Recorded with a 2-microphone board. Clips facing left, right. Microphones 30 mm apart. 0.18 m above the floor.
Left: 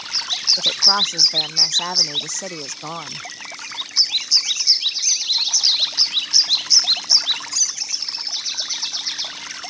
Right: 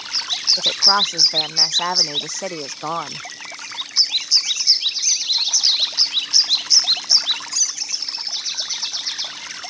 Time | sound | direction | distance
0.6 | a woman speaking | 10° right (ahead or behind) | ?